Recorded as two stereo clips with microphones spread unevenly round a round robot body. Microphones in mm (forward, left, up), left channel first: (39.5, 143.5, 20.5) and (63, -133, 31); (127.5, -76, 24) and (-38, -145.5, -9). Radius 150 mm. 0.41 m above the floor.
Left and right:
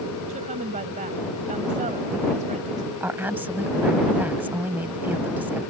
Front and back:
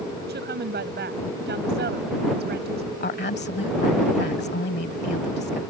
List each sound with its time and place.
0.3 s a woman speaking: 150° right
3.0 s a woman speaking: straight ahead